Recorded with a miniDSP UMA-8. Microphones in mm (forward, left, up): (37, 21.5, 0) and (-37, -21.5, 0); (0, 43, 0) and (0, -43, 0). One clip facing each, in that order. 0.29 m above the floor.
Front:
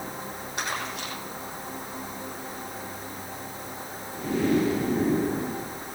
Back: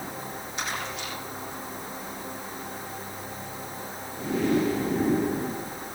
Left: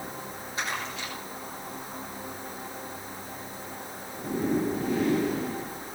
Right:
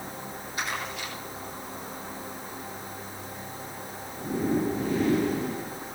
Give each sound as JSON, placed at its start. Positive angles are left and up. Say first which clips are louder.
{"t": 0.6, "sound": "crumpling", "louder": "front 1 dB, even", "azimuth_deg": 25, "distance_m": 8.0}